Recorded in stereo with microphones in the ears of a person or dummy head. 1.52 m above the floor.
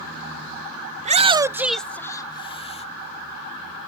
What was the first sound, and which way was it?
A shout, 40° right (ahead or behind).